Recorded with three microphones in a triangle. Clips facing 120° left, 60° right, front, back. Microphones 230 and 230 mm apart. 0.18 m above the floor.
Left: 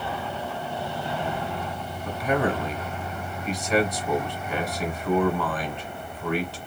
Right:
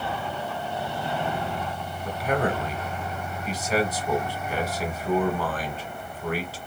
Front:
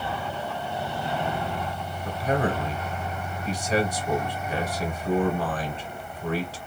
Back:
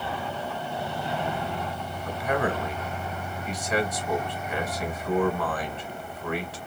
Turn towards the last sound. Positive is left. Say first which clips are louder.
# left 1 dB, front 2 dB
turn(degrees=25)